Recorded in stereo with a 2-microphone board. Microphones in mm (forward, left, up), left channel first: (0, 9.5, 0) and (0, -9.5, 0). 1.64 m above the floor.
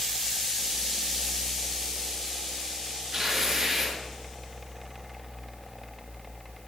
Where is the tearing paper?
30° right (ahead or behind), 5.5 m.